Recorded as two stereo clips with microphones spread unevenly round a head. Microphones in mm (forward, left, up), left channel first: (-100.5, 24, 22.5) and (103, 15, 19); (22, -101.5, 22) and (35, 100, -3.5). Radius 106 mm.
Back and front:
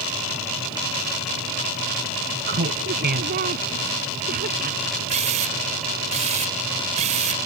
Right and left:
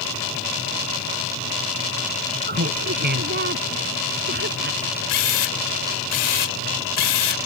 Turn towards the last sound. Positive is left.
turn(degrees=-65)